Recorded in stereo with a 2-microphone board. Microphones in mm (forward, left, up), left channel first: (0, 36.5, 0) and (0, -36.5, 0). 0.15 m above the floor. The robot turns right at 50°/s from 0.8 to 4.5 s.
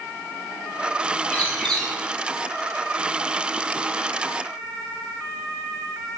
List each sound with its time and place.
1.3 s a bird: 150° left, 0.9 m; by 1.9 s straight behind, 0.9 m